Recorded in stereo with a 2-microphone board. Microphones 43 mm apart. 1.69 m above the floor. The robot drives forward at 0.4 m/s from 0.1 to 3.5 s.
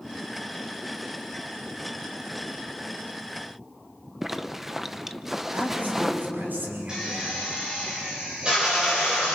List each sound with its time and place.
4.2 s a zipper: 5° right (ahead or behind), 0.7 m
5.5 s a man speaking: 45° right (ahead or behind), 6 m
6.9 s a drill: 20° right (ahead or behind), 7.5 m